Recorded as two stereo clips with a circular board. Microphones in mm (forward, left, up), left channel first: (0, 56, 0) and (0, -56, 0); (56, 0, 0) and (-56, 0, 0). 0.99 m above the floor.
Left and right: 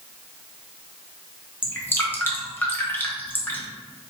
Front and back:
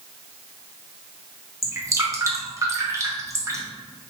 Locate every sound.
1.6 s dripping: 145° left, 0.9 m